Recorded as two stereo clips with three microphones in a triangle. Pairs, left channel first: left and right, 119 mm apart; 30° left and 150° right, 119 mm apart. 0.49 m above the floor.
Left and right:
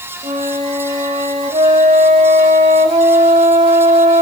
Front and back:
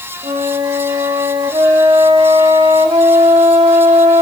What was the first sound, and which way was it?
A flute, 110° right.